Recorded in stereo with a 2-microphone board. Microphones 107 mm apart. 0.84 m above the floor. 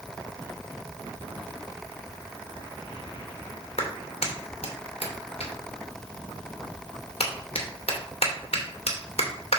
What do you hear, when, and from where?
3.8 s a clap: 70° left (ahead or behind), 2.5 m